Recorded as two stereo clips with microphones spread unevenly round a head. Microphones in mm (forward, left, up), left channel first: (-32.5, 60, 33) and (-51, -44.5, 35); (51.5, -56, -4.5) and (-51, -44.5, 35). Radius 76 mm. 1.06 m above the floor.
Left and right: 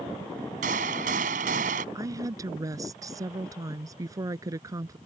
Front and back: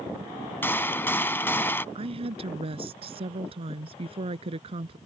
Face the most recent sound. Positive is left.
turn(degrees=-160)